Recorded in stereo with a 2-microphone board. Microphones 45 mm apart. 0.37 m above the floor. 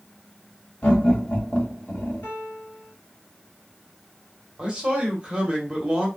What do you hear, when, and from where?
0.8 s laughter: 35° left (ahead or behind), 2 m
2.2 s a piano: 40° left (ahead or behind), 3 m
4.6 s a man speaking: 15° right (ahead or behind), 1.5 m